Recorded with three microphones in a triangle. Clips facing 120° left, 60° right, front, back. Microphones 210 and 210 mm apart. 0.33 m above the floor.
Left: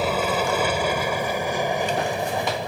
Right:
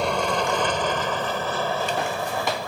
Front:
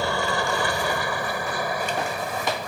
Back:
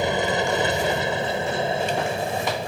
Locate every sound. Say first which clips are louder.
0.0 s an aircraft: left 1 dB, back 3 dB; 160° right; by 2.7 s 165° left